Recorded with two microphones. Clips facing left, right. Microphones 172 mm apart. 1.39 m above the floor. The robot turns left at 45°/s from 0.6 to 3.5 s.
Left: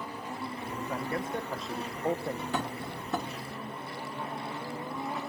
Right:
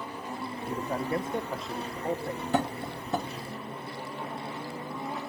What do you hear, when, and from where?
0.7 s a man speaking: 130° right, 1.1 m; by 2.4 s 150° left, 1.1 m
2.5 s tapping: 45° right (ahead or behind), 1.9 m; by 3.3 s 10° right (ahead or behind), 1.9 m